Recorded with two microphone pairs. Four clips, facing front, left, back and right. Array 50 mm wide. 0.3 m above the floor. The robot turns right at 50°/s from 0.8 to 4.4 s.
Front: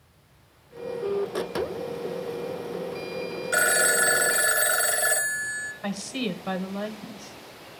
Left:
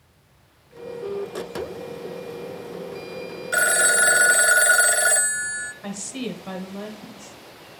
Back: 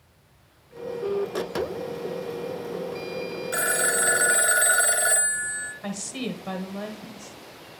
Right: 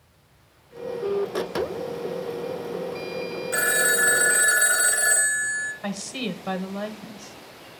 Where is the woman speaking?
45° right, 1.0 m.